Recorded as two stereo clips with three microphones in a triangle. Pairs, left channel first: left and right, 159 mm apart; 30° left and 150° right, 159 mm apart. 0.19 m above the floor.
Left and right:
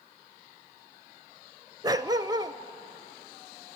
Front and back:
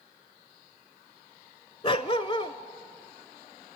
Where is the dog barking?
30° right, 0.6 m.